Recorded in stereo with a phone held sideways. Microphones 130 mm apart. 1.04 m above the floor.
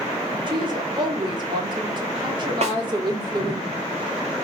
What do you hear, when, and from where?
0.5 s a woman speaking: 35° right (ahead or behind), 3.5 m
2.6 s a snare drum: 55° right (ahead or behind), 3 m